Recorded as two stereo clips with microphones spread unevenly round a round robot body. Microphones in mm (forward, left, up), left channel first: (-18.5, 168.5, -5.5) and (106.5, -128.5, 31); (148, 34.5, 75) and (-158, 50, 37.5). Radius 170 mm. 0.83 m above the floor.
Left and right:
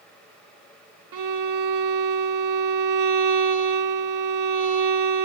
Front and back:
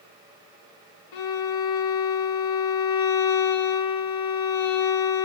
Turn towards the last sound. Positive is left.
turn(degrees=-35)